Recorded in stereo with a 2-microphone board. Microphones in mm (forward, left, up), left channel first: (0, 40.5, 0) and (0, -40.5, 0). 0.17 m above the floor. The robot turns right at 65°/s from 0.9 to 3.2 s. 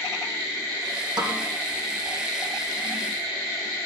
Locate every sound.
1.2 s a snare drum: 60° right (ahead or behind), 5 m; by 1.5 s 80° right, 5 m